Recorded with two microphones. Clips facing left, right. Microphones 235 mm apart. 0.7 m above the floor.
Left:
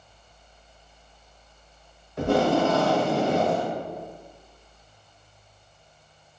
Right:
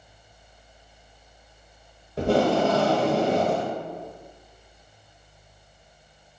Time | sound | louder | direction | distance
2.2 | tape being pulled | even | 35° right (ahead or behind) | 0.9 m